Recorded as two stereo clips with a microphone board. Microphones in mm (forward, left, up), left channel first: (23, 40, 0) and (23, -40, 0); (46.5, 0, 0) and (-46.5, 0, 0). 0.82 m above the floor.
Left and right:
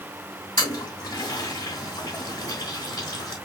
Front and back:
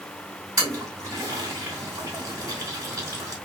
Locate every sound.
0.6 s a toilet flushing: 125° left, 2.5 m